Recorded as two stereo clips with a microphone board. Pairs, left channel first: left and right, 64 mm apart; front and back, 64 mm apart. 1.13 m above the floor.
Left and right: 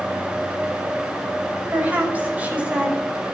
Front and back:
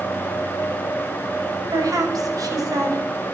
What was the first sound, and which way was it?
A woman speaking, 155° right.